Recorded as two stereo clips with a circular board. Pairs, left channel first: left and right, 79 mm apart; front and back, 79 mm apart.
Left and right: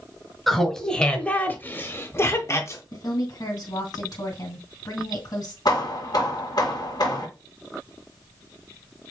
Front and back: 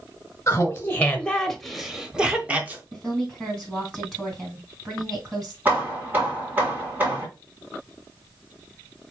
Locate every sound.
0.5 s laughter: straight ahead, 1.0 m; by 2.8 s 120° left, 1.2 m
2.9 s a woman speaking: 95° left, 2.5 m
5.7 s hammering: 115° left, 1.6 m